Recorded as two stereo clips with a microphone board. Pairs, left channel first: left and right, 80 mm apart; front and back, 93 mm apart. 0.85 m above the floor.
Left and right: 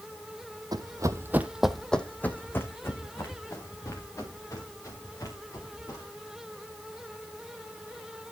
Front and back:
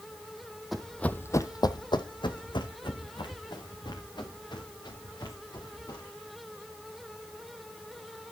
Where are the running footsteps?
90° right, 1.3 m; by 6.0 s 40° left, 7 m.